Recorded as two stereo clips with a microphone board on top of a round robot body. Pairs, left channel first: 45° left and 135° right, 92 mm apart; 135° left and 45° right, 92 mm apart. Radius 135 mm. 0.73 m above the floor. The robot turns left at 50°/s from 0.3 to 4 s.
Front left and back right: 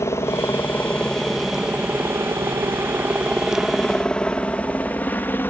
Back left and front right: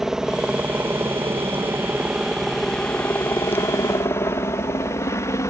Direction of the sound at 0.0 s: 35° left.